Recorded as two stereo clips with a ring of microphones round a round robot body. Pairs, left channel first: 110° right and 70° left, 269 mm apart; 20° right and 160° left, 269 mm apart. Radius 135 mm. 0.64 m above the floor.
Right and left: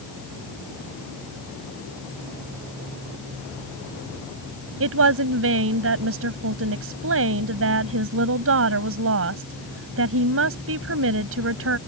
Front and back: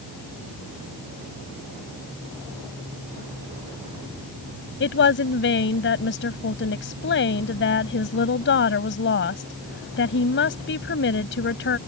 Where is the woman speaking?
25° left.